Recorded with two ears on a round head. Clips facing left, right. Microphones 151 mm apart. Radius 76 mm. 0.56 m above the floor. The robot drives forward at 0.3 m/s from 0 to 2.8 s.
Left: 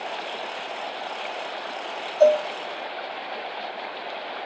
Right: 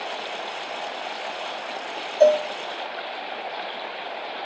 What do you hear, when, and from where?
2.2 s a cowbell: 15° right (ahead or behind), 1.0 m